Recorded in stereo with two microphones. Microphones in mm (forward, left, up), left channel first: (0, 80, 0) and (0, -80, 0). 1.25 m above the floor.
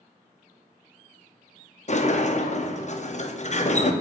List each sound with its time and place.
1.9 s a sliding door: 50° left (ahead or behind), 0.6 m